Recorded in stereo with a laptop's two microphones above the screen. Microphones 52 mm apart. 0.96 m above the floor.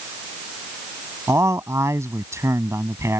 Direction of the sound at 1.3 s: 65° right (ahead or behind).